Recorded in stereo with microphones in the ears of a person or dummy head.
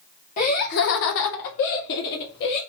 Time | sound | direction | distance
0.4 | laughter | 40° left (ahead or behind) | 1.0 m